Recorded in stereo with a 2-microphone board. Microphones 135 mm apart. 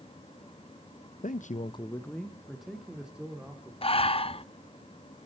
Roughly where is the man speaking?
Left.